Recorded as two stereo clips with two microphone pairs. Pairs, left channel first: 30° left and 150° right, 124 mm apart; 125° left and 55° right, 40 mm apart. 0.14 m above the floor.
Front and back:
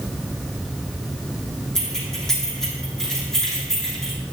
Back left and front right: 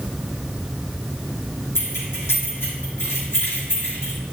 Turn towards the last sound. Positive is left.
turn(degrees=115)